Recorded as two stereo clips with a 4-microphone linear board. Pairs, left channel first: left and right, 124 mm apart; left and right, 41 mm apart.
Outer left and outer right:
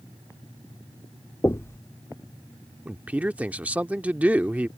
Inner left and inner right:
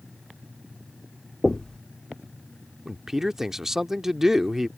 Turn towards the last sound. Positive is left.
turn(degrees=-10)  # may be behind; listen again after turning